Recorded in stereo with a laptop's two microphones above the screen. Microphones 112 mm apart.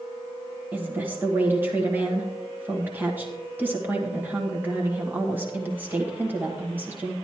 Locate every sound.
0.7 s a woman speaking: 15° right (ahead or behind), 1.3 m